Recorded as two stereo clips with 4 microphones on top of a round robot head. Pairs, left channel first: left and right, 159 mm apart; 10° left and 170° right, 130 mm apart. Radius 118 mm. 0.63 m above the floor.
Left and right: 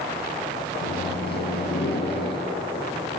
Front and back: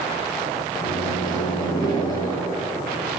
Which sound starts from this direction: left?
A microwave, at 0.8 s.